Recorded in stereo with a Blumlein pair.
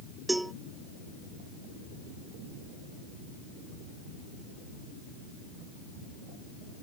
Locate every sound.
0.3 s a cowbell: 5° right